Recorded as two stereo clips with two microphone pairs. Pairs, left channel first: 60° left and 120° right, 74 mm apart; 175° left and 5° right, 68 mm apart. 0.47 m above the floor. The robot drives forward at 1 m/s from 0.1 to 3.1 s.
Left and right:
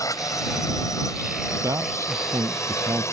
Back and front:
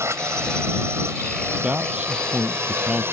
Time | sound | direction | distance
0.0 | a drone | 35° left | ?
1.6 | a man speaking | 75° right | ?